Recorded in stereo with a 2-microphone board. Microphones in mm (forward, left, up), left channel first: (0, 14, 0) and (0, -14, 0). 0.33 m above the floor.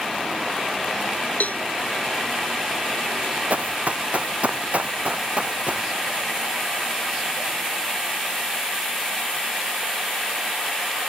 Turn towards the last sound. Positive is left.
turn(degrees=-50)  # may be behind; listen again after turning